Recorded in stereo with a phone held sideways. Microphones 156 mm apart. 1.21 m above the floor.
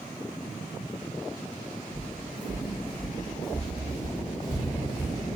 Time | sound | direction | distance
1.9 | footsteps | 5° left (ahead or behind) | 1.5 m